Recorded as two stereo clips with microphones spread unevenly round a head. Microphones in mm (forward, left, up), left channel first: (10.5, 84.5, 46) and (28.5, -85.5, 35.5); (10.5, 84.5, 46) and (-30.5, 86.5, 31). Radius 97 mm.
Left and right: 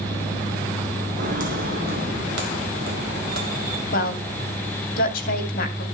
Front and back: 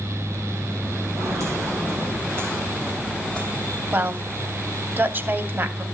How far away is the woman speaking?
About 2.5 m.